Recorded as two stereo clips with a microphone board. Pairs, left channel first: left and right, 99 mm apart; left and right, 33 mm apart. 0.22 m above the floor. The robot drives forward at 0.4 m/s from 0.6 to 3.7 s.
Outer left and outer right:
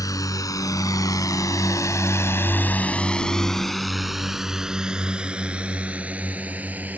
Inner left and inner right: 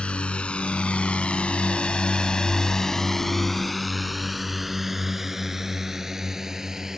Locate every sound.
0.0 s a drone: 35° left (ahead or behind); by 7.0 s 15° right (ahead or behind)